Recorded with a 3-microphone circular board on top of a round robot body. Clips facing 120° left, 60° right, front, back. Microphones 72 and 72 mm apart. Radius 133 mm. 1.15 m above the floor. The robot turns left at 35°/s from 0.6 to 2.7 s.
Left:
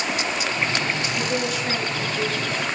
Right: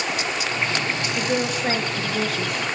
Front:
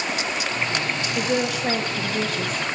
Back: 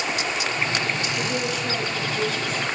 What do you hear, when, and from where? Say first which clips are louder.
1.1 s a woman speaking: right 1 dB, front 3 dB; 5° left, 0.8 m; by 2.6 s 45° right, 0.8 m